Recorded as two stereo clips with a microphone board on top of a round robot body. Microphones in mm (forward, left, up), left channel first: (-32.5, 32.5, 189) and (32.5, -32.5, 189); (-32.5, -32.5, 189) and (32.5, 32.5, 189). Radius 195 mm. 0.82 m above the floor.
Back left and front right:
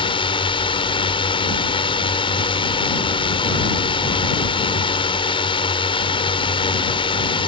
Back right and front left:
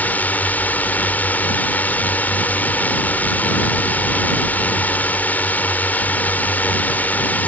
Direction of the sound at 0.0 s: 155° left.